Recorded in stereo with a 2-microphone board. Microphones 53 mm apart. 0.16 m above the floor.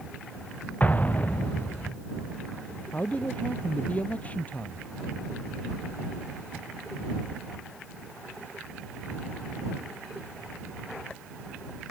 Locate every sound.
0.8 s an explosion: 30° left (ahead or behind)
2.9 s a man speaking: 30° left (ahead or behind)